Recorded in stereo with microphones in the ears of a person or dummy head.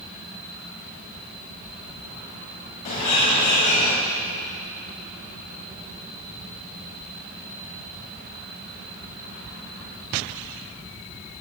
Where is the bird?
45° left (ahead or behind), 1.8 m.